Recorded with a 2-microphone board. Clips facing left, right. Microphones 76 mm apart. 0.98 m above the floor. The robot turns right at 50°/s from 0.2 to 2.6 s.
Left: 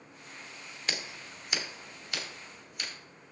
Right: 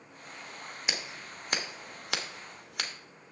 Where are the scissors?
15° right (ahead or behind), 1.1 m; by 2.9 s 75° right (ahead or behind), 1.1 m.